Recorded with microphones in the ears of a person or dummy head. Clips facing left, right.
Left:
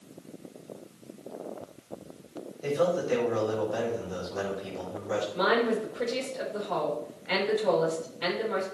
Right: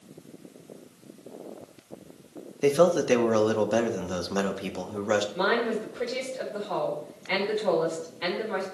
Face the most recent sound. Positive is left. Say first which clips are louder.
# left 1 dB
turn(degrees=5)  # may be behind; listen again after turning